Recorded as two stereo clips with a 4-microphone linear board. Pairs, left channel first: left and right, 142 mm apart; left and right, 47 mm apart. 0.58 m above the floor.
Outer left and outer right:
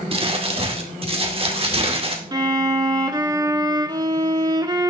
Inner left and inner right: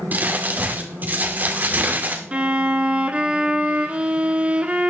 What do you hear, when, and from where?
0.1 s crumpling: 40° right (ahead or behind), 2 m
2.3 s a violin: 30° right (ahead or behind), 1.4 m